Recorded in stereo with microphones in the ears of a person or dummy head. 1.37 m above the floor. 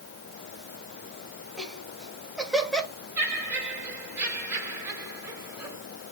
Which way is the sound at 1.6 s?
5° left (ahead or behind).